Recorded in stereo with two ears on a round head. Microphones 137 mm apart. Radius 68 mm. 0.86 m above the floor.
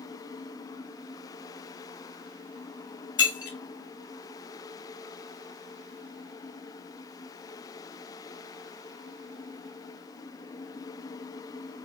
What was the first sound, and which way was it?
Breaking glass, 25° left (ahead or behind).